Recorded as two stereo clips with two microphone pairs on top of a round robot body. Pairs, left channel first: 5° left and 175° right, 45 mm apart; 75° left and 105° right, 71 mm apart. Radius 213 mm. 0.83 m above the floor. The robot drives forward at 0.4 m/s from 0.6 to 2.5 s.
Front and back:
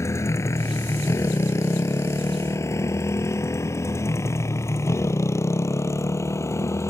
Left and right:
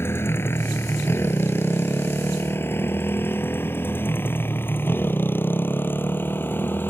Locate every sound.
0.0 s a motorcycle: 15° left; by 6.9 s 10° left